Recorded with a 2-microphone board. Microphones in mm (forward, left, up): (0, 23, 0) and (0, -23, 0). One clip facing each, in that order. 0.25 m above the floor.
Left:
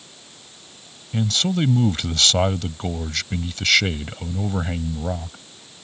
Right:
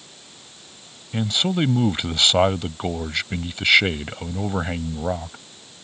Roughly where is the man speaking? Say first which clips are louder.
Even; centre.